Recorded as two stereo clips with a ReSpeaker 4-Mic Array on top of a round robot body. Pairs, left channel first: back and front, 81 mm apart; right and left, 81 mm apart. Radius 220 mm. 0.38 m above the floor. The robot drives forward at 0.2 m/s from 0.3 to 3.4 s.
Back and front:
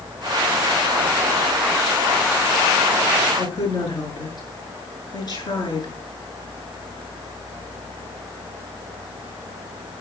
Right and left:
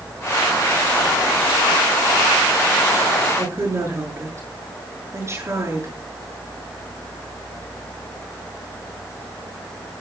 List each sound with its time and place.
3.4 s a woman speaking: 145° left, 8 m